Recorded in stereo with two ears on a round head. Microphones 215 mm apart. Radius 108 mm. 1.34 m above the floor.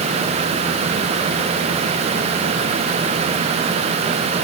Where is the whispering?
I don't hear whispering.